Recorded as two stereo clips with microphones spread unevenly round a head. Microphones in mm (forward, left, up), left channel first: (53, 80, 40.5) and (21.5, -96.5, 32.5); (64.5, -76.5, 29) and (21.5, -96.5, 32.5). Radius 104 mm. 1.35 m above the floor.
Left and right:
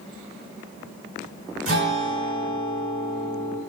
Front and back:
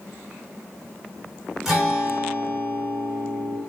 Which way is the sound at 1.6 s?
90° right.